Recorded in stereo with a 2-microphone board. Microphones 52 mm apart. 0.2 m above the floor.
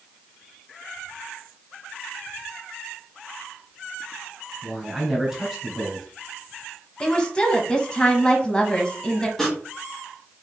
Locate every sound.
4.6 s a man speaking: 10° right (ahead or behind), 1.7 m
7.0 s a woman speaking: 15° left (ahead or behind), 1.0 m
9.4 s sawing: 10° left (ahead or behind), 1.9 m